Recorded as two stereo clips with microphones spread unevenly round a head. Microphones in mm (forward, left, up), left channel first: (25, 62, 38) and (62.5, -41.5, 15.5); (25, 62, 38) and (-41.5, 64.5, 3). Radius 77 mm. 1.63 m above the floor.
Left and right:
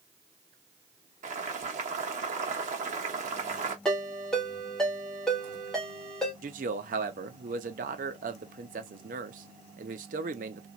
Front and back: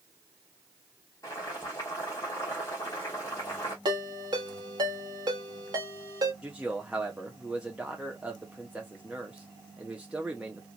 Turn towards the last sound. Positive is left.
turn(degrees=-80)